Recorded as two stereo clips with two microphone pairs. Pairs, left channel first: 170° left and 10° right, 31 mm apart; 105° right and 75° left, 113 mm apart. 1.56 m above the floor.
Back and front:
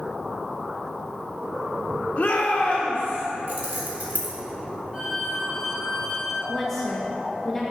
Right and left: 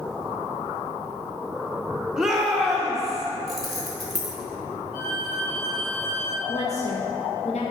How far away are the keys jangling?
About 1.4 m.